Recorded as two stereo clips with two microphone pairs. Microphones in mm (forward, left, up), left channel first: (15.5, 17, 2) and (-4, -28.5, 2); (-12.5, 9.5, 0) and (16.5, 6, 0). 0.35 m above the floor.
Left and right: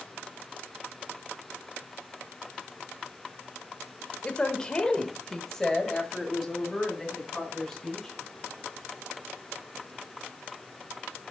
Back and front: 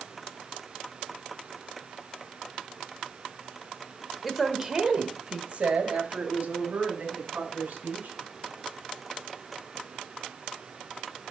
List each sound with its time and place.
4.2 s a woman speaking: 85° left, 0.9 m; by 8.1 s 20° right, 3 m